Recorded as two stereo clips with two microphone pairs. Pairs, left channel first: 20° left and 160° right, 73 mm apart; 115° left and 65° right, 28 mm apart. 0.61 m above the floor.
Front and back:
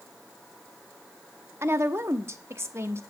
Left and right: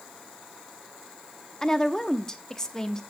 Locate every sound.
1.6 s a woman speaking: 175° left, 0.7 m